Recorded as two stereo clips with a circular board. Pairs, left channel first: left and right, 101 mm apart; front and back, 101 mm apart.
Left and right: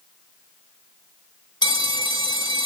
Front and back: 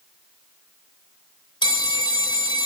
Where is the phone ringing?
40° left, 1.7 m.